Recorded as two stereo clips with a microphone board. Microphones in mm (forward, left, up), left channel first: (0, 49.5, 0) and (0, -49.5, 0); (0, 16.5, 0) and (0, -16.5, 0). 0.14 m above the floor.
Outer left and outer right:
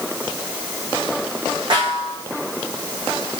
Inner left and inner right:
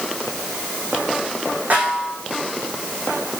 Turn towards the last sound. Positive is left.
turn(degrees=-50)  # may be behind; listen again after turning